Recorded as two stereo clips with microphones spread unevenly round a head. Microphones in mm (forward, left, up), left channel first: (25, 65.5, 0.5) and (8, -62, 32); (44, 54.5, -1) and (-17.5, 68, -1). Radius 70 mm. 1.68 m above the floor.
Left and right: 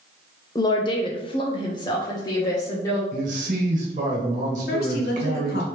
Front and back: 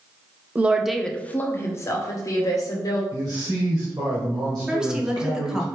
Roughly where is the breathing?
I don't hear breathing.